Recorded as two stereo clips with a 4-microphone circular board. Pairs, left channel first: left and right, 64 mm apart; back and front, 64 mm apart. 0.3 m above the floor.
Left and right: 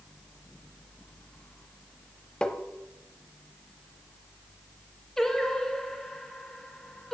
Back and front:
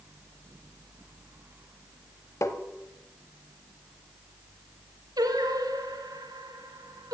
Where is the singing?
5° left, 1.1 m.